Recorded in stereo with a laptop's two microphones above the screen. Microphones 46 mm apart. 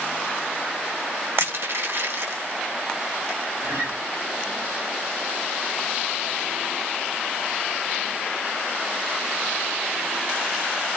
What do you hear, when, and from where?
1.4 s crushing: 75° right (ahead or behind), 2.5 m
3.6 s a guitar: 85° right, 2.5 m